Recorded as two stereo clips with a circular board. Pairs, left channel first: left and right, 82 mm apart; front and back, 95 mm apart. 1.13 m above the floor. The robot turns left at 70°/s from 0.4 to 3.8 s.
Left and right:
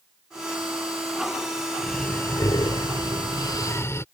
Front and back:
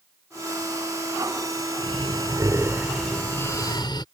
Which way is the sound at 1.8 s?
175° left.